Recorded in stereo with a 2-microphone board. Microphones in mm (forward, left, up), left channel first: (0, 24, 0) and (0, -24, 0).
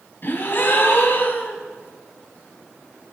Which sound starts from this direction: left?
A gasp, at 0.2 s.